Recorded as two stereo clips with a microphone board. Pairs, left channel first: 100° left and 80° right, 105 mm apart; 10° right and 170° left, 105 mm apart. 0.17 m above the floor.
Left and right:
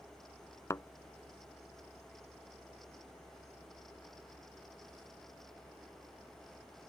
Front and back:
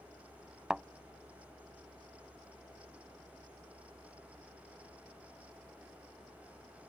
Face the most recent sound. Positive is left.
turn(degrees=95)